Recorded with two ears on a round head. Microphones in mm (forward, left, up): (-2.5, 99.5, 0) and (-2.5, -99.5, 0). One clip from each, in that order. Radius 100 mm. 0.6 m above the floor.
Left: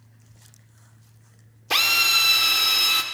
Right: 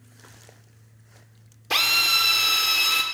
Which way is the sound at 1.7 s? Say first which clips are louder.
Left 1 dB; 5° left (ahead or behind).